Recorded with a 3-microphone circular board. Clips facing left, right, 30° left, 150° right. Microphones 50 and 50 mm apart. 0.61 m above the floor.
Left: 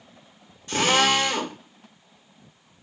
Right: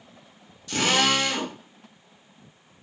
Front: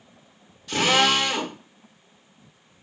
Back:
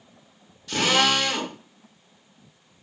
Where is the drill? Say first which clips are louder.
Left 2 dB, front 1 dB; 110° left, 0.9 m.